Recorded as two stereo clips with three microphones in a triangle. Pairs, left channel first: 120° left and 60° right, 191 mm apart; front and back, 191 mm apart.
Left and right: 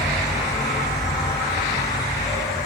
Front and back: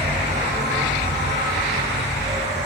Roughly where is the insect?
Behind.